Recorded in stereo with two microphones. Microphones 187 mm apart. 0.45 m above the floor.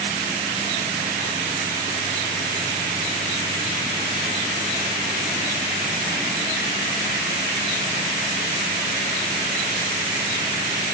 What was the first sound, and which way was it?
Only background noise.